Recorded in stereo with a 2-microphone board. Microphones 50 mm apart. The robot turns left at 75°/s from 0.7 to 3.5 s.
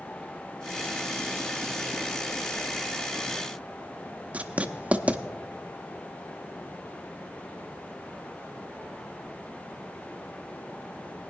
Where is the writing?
25° right (ahead or behind), 0.7 m.